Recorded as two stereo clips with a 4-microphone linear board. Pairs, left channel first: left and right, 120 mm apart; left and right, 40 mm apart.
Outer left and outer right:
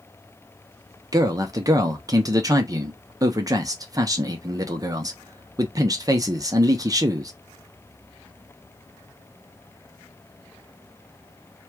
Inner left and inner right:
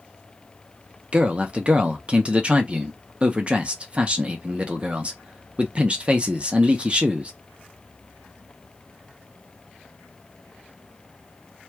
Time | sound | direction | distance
1.1 | a man speaking | 30° right (ahead or behind) | 0.7 m